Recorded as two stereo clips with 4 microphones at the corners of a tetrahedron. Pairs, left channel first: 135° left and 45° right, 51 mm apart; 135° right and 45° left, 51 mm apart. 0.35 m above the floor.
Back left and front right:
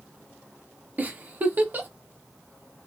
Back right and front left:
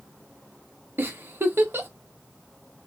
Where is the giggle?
5° left, 0.6 m.